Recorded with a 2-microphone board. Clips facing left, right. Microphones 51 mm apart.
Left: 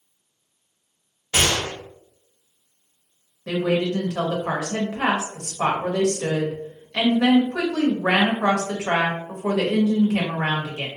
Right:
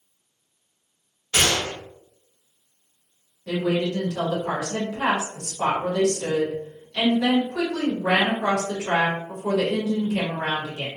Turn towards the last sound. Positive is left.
turn(degrees=60)  # may be behind; listen again after turning